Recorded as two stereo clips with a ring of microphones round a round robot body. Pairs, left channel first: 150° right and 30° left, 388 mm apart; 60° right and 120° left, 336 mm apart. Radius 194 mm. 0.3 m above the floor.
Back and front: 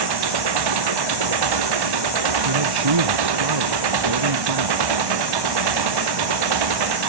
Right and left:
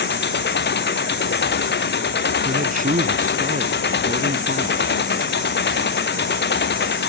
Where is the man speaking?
55° left.